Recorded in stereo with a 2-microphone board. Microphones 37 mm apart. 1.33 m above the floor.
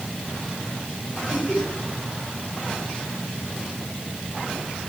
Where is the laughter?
40° left (ahead or behind), 7.5 m.